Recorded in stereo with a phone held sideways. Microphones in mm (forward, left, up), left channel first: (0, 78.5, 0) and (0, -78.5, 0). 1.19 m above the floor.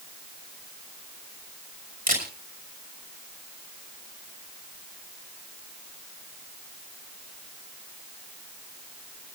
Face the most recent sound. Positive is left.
turn(degrees=-65)  # may be behind; listen again after turning